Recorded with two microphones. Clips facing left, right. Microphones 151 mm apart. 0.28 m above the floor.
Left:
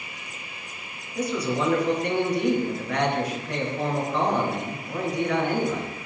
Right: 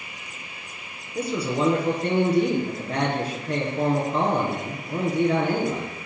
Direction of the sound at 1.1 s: 30° right (ahead or behind).